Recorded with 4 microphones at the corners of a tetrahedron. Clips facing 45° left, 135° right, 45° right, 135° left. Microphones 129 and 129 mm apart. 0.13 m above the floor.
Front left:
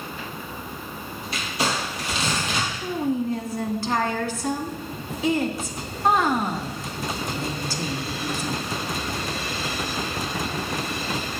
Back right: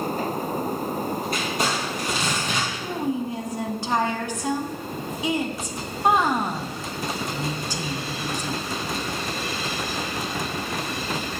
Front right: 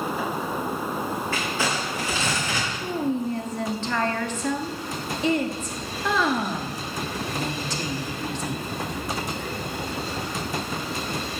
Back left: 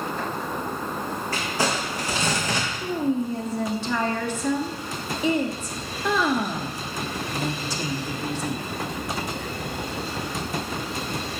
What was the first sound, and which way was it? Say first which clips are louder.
Crumpling: back right 2 dB, back left 1 dB; 175° right.